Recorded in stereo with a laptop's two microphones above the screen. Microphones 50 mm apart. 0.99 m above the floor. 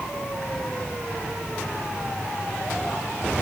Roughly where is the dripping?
I don't hear dripping.